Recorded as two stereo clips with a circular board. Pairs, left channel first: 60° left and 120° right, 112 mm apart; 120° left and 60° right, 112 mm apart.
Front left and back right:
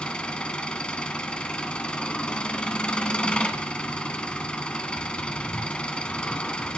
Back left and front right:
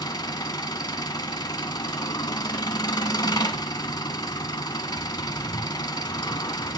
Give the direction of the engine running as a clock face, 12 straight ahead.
7 o'clock.